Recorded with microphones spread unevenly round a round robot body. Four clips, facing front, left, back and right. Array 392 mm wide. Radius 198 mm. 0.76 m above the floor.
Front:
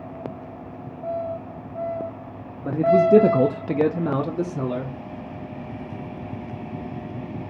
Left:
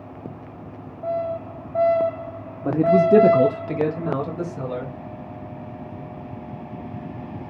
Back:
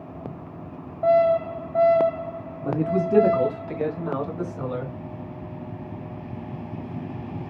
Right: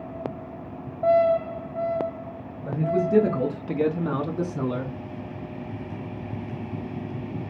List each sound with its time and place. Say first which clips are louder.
2.6 s a man speaking: left 8 dB, front 7 dB; 80° left, 1.4 m; by 5.0 s 35° right, 2.5 m